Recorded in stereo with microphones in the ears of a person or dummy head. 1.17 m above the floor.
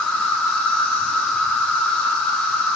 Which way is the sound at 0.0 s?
Centre (ahead or behind).